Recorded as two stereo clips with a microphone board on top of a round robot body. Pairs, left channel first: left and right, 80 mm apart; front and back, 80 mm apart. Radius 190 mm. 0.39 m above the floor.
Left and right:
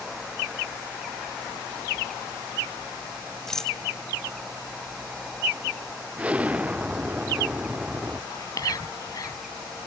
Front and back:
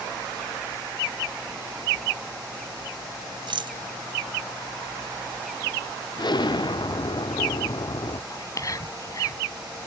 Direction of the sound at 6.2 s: 15° right.